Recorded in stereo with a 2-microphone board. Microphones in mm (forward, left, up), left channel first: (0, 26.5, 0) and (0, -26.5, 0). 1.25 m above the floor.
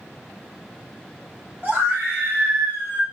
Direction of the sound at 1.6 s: 35° right (ahead or behind).